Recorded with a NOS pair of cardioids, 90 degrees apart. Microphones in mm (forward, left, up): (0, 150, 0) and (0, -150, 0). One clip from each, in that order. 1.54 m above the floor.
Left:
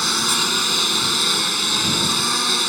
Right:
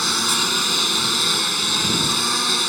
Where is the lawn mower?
Straight ahead.